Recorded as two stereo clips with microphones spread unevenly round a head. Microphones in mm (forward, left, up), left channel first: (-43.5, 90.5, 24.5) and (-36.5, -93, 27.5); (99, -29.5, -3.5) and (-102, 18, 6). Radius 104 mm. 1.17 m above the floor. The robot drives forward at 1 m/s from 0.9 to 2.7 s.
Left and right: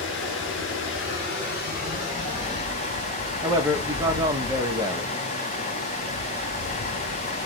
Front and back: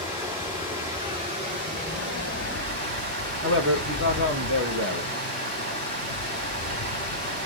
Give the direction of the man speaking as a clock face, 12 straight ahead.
5 o'clock.